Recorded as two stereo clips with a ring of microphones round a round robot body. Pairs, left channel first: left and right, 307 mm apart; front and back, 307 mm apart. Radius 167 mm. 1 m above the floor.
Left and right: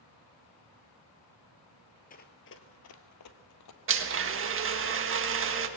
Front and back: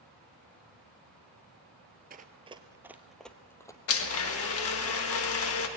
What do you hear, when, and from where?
2.1 s running footsteps: 140° left, 1.2 m; by 3.8 s 80° left, 1.8 m
3.9 s a blender: 45° right, 1.6 m